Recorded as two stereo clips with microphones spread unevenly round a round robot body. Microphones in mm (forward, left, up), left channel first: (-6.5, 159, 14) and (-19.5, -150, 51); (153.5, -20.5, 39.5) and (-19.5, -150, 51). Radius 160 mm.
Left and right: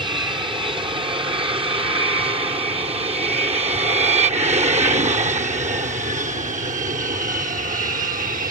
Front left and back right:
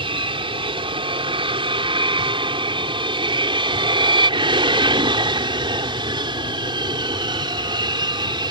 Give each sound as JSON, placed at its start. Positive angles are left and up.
{"t": 0.0, "sound": "an aircraft", "azimuth_deg": -160}